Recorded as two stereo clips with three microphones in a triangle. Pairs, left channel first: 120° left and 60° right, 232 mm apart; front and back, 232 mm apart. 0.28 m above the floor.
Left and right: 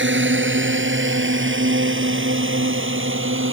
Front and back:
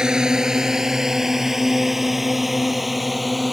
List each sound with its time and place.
0.0 s a drone: 95° right; by 3.5 s 90° right